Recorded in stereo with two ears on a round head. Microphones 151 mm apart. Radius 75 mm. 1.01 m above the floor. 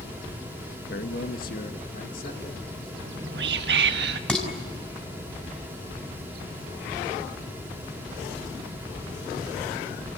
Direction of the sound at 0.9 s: 60° left (ahead or behind).